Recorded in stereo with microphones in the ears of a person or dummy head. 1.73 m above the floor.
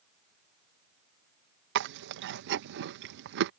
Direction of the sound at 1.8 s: 65° right (ahead or behind).